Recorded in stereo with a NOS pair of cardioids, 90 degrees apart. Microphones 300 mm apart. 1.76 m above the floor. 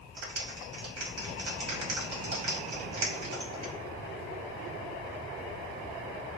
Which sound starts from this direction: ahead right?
A clap, at 0.2 s.